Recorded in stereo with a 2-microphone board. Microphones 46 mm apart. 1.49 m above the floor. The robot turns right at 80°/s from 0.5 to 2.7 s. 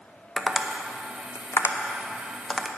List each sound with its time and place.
0.4 s tapping: 10° left (ahead or behind), 0.6 m; by 2.7 s 5° right (ahead or behind), 0.6 m